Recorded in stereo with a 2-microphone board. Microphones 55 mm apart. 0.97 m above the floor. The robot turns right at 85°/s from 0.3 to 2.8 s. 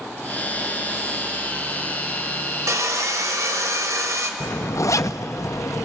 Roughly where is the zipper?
Left.